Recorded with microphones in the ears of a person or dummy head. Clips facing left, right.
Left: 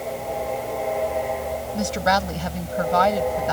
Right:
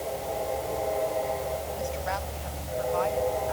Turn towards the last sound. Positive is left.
turn(degrees=90)